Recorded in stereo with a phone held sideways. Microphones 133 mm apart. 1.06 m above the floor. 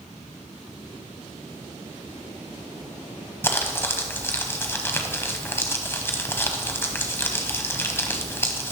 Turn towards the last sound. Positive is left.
turn(degrees=20)  # may be behind; listen again after turning